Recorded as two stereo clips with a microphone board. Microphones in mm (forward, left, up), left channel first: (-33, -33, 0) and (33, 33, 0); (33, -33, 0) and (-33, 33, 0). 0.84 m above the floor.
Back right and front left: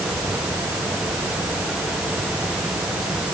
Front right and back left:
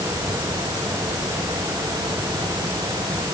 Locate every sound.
Only background noise.